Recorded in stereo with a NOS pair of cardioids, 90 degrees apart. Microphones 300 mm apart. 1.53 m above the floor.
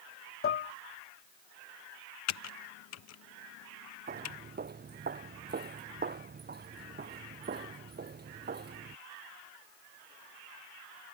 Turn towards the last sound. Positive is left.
turn(degrees=-35)